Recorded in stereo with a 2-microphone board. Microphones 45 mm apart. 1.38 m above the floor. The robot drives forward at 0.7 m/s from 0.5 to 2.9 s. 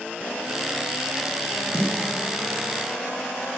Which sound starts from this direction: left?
A snare drum, at 1.7 s.